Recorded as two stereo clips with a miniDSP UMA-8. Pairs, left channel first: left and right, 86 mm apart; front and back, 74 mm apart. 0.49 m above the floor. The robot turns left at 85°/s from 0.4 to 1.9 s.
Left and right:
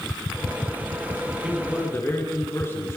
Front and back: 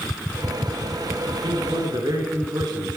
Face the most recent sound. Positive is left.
turn(degrees=150)